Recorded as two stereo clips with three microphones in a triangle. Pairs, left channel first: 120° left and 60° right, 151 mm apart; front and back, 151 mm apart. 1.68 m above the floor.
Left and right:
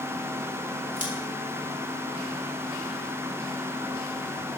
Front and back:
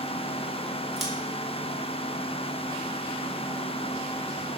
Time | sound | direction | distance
1.0 | scissors | 90° right | 2.5 m